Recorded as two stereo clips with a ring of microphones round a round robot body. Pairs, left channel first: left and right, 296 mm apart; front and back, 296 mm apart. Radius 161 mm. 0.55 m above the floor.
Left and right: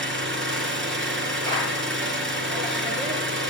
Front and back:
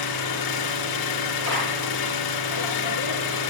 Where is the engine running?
35° right, 3 m.